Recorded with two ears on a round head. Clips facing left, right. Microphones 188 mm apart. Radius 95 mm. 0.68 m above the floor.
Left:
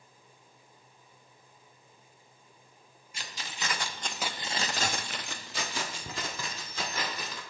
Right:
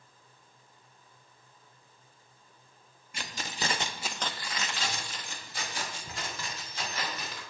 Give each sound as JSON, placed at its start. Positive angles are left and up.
{"t": 3.1, "sound": "keys jangling", "side_deg": -50, "distance_m": 0.7}